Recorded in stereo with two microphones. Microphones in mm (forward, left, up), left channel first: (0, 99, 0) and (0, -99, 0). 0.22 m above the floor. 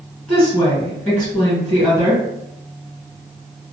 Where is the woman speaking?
10° left (ahead or behind), 1.8 m.